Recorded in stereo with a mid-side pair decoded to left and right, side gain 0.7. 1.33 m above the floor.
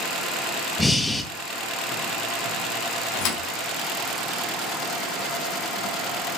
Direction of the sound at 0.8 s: 15° left.